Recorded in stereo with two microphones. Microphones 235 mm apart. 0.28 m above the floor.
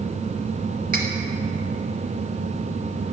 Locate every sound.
0.9 s cutlery clinking: 35° right (ahead or behind), 0.8 m